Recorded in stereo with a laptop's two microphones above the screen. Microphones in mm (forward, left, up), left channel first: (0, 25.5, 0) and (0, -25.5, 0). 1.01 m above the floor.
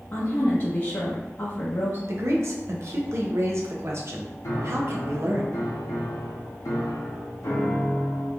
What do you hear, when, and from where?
0.1 s a woman speaking: 55° left (ahead or behind), 0.8 m
2.1 s a man speaking: 55° right (ahead or behind), 0.6 m
4.4 s a piano: 75° left (ahead or behind), 0.7 m